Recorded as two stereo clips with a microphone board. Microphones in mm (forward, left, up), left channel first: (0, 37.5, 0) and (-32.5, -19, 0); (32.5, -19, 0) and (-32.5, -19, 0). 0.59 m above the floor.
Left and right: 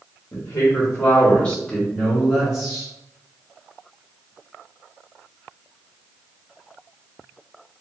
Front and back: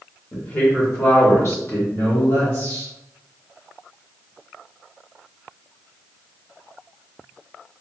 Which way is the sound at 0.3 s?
50° left.